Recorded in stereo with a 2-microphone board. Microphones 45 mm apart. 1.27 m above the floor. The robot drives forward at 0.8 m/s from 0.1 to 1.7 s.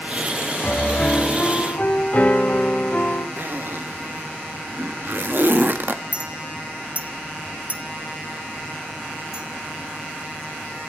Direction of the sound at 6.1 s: 35° right (ahead or behind).